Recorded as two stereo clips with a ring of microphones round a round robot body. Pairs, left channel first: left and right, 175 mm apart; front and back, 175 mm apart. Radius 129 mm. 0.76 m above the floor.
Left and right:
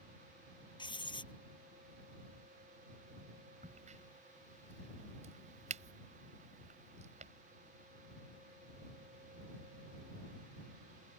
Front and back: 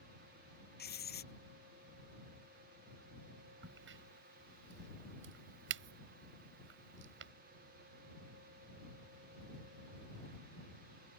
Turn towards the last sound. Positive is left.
turn(degrees=-155)